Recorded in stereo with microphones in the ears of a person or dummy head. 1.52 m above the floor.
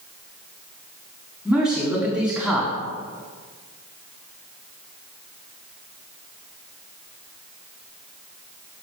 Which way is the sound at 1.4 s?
Centre (ahead or behind).